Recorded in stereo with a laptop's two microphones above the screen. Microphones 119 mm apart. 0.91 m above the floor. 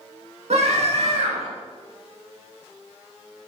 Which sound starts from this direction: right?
A scream, at 0.5 s.